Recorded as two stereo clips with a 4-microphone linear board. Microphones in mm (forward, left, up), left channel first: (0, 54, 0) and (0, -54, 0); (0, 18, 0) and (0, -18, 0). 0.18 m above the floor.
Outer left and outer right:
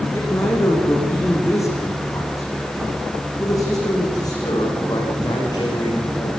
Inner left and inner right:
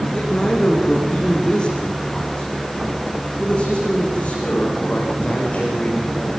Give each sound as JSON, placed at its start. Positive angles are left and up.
{"t": 0.1, "sound": "a man speaking", "side_deg": 25, "distance_m": 10.0}